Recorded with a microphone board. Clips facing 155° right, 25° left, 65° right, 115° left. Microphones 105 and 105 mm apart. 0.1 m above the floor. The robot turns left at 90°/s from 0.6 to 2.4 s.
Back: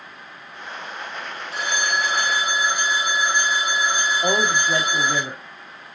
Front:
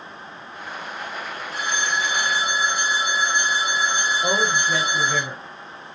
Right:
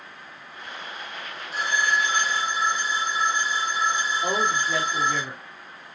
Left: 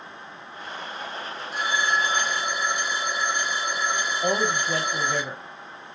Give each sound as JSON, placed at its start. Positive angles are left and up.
{"t": 1.5, "sound": "a phone ringing", "azimuth_deg": -160, "distance_m": 2.0}
{"t": 4.2, "sound": "a man speaking", "azimuth_deg": 160, "distance_m": 2.0}